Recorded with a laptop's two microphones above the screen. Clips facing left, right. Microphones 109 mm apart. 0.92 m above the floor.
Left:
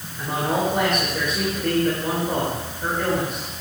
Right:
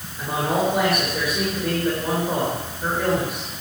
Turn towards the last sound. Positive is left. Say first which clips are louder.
# right 1 dB
turn(degrees=-5)  # may be behind; listen again after turning